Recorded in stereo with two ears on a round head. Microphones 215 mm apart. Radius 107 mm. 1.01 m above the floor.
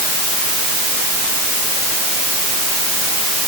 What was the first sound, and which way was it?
Only background noise.